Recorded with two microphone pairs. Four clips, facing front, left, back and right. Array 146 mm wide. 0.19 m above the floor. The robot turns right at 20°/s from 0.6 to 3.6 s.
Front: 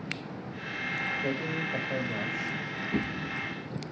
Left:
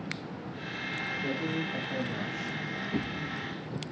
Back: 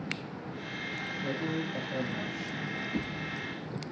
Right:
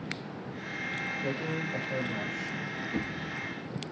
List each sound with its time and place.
1.2 s a man speaking: 10° right, 4.5 m; by 2.8 s 20° left, 4.5 m
2.9 s a drawer: 15° left, 4.5 m; by 3.9 s 30° left, 4.5 m